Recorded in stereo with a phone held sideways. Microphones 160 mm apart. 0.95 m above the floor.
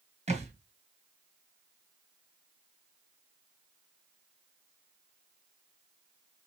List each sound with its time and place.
0.3 s a thud: 45° right (ahead or behind), 1.7 m